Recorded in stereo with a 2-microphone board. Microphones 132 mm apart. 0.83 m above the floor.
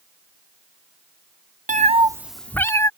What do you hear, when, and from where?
1.7 s a cat meowing: 75° right (ahead or behind); by 2.9 s 25° left (ahead or behind)